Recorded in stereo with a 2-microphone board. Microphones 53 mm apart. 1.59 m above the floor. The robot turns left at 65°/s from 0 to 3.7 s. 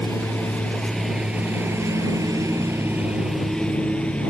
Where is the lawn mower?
75° left (ahead or behind); by 4.3 s 25° left (ahead or behind).